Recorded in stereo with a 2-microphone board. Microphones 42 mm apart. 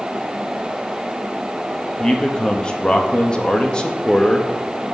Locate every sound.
2.0 s a man speaking: 25° left (ahead or behind), 0.7 m